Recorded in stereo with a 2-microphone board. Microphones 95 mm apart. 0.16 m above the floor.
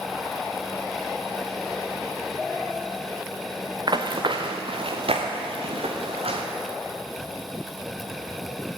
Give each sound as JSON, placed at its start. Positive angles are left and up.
{"t": 3.9, "sound": "running footsteps", "side_deg": -50, "distance_m": 1.1}